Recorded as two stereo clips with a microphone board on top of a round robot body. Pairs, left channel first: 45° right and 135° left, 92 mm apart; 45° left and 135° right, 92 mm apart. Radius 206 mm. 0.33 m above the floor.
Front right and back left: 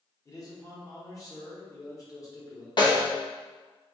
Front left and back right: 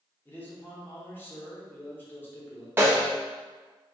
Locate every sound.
0.2 s a man speaking: 15° right, 1.5 m
2.8 s a snare drum: 75° right, 1.0 m